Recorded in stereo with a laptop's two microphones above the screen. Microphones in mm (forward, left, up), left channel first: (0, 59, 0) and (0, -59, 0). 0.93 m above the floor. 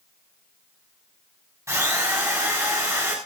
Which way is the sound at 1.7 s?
25° right (ahead or behind).